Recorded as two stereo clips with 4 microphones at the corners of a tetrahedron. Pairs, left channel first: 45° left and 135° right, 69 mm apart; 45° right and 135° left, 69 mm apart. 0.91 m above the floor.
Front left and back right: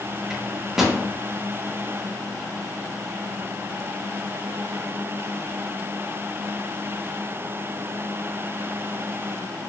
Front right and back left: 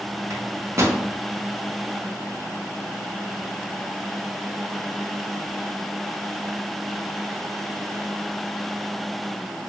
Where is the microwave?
145° left, 0.6 m.